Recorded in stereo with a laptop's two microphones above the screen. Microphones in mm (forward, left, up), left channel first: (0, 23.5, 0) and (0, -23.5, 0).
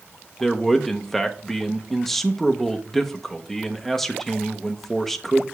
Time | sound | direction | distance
0.4 | a man speaking | 5° left (ahead or behind) | 0.6 m